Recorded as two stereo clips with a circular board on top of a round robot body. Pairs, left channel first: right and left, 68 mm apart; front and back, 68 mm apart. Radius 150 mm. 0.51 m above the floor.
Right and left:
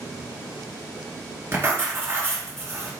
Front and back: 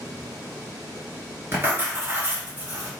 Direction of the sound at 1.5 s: 130° left.